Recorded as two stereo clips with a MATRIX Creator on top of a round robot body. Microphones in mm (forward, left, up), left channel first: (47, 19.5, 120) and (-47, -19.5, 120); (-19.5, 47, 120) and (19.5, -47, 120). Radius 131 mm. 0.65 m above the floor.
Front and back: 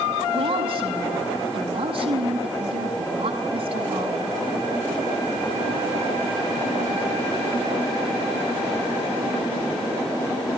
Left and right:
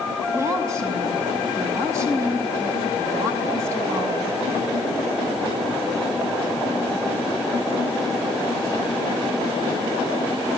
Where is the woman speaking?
130° right, 5.5 m.